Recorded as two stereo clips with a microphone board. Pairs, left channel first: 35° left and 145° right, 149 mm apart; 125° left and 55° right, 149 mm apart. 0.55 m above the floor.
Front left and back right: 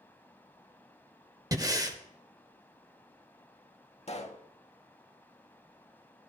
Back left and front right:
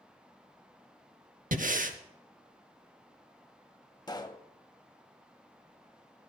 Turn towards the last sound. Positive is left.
turn(degrees=65)